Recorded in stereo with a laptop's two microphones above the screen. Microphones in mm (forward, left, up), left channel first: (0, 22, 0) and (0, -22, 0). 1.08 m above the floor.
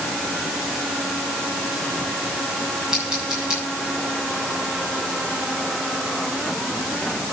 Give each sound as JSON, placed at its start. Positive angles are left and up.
{"t": 2.9, "sound": "scissors", "side_deg": -15, "distance_m": 7.0}